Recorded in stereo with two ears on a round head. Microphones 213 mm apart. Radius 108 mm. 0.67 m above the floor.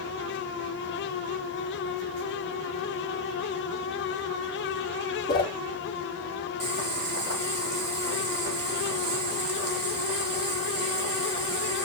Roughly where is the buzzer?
No buzzer in this recording.